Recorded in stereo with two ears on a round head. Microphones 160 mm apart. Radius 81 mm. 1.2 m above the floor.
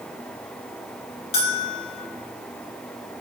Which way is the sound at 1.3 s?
35° left (ahead or behind).